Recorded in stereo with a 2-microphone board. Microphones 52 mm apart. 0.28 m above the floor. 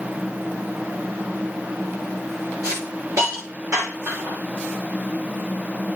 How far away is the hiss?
About 9 m.